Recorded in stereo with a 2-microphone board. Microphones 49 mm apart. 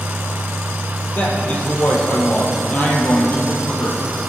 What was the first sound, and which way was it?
A man speaking, 35° left (ahead or behind).